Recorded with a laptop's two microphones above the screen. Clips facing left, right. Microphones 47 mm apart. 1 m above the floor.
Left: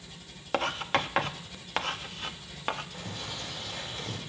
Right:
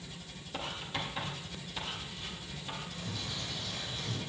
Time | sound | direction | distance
0.5 | writing | 65° left (ahead or behind) | 0.6 m
2.9 | a bird | 55° left (ahead or behind) | 4 m